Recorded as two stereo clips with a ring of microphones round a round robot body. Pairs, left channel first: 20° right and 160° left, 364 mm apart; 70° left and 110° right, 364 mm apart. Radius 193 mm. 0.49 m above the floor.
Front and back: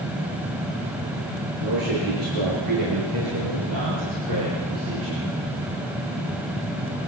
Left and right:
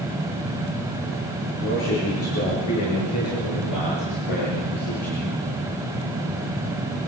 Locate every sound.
1.6 s a man speaking: 125° left, 8 m; by 5.3 s 100° left, 8.5 m